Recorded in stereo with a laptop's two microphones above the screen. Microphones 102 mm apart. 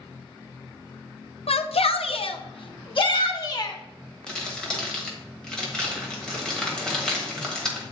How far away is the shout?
About 0.7 m.